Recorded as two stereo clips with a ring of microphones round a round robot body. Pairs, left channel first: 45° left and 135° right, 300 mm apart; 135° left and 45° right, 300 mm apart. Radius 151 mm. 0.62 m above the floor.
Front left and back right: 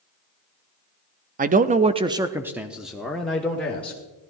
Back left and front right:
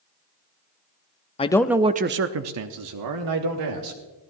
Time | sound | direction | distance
1.4 | a man speaking | 170° right | 0.6 m